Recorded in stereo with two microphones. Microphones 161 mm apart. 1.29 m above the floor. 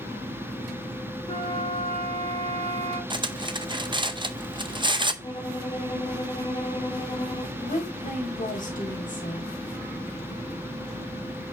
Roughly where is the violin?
Left.